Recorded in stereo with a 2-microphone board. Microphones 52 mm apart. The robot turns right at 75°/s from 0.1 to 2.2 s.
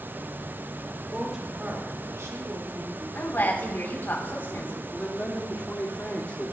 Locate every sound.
1.1 s a woman speaking: 175° left, 3 m; by 3.0 s 105° right, 3 m
3.1 s a woman speaking: 45° left (ahead or behind), 3.5 m
4.9 s a man speaking: 30° left (ahead or behind), 1.6 m